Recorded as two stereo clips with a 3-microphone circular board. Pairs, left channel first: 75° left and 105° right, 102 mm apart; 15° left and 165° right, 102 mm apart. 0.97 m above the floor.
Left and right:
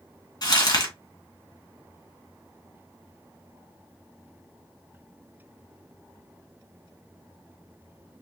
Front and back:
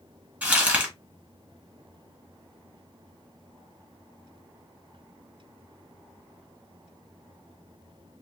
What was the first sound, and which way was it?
Crumpling, 120° left.